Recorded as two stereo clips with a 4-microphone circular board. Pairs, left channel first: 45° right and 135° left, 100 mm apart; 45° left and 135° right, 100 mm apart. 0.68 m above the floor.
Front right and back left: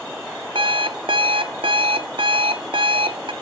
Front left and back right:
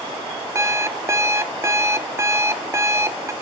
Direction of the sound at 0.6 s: 165° left.